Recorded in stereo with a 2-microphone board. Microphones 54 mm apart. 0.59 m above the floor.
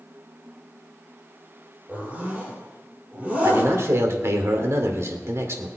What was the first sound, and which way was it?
A zipper, 25° right (ahead or behind).